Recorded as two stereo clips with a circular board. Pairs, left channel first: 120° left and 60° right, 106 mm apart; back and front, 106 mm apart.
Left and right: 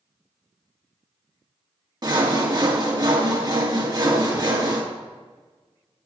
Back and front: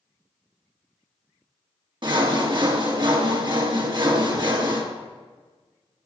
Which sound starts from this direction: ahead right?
Sawing, at 2.0 s.